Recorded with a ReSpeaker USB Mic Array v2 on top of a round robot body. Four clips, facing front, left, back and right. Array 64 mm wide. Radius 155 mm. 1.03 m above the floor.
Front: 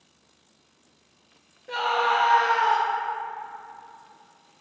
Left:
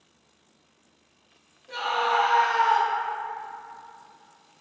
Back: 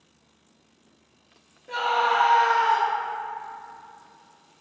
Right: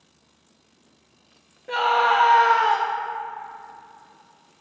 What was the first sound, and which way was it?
A scream, 80° right.